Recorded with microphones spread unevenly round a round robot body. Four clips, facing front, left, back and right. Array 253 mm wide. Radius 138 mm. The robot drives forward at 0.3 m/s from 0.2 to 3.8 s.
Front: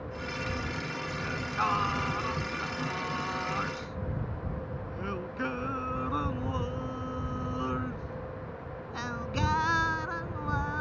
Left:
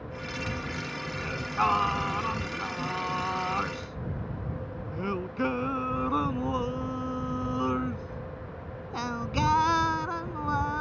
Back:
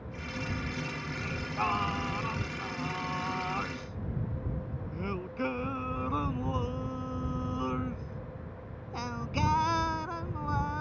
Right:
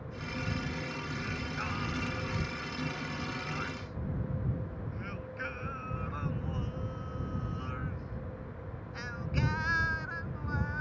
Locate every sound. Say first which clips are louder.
1.2 s singing: left 10 dB, front 2 dB; 90° left; by 10.8 s 95° left